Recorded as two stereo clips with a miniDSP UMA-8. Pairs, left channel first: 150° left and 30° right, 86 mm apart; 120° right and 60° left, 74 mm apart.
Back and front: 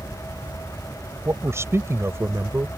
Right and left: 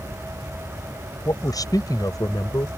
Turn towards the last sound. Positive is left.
turn(degrees=-90)